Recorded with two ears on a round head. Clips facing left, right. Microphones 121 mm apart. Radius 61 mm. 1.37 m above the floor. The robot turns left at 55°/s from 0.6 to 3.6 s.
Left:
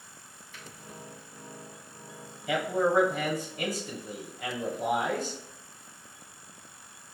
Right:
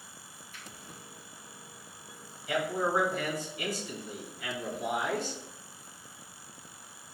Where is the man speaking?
100° left, 1.1 m; by 5.4 s 40° left, 1.1 m.